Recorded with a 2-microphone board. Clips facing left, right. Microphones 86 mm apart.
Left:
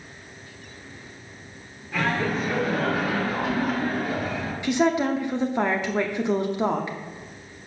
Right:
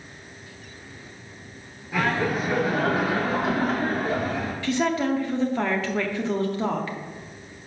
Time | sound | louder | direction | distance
1.9 | laughter | right 1 dB | 10° right (ahead or behind) | 1.5 m
4.6 | a woman speaking | left 2 dB | 20° left (ahead or behind) | 0.6 m